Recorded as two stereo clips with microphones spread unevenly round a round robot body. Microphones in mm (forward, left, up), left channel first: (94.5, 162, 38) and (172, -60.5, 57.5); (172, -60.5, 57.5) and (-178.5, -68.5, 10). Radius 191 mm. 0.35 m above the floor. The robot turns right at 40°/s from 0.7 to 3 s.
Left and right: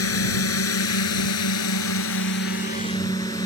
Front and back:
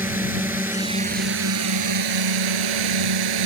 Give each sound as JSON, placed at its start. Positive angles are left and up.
{"t": 0.0, "sound": "a drone", "azimuth_deg": 95}